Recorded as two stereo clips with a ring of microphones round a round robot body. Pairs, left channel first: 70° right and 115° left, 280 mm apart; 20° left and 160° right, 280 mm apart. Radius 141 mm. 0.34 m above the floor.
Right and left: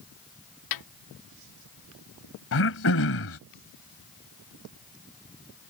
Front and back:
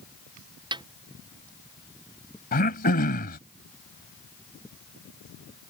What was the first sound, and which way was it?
A snare drum, 80° right.